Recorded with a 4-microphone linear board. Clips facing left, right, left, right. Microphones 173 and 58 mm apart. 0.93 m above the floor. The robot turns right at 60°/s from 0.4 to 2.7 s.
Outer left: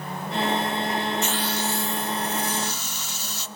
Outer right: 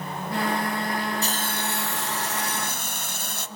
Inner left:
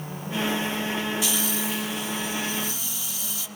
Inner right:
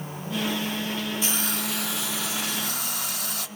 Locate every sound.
1.2 s a hiss: 145° right, 1.0 m; by 3.5 s 55° right, 1.0 m